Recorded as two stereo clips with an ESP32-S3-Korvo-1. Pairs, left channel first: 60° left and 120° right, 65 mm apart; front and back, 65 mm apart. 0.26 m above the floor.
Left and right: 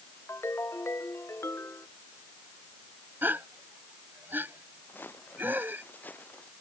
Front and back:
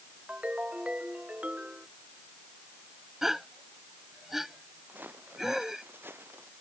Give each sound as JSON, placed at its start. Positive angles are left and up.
{"t": 0.3, "sound": "a ringtone", "azimuth_deg": 110}
{"t": 3.2, "sound": "a gasp", "azimuth_deg": -100}
{"t": 4.9, "sound": "footsteps", "azimuth_deg": 120}